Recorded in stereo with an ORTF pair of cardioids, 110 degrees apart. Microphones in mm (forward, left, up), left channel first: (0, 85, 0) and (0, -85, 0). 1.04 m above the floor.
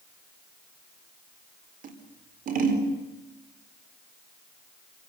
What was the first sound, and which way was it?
Scissors, 55° right.